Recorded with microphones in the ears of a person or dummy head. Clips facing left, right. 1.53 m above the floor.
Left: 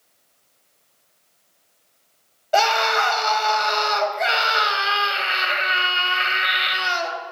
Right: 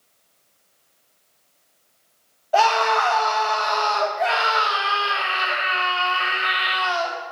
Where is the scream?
35° left (ahead or behind), 1.8 m.